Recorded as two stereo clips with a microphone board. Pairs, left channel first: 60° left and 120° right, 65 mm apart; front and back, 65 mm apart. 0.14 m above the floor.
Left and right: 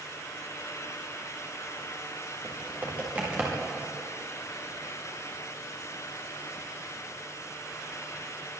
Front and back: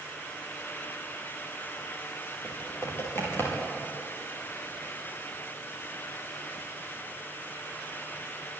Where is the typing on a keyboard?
50° right, 10 m.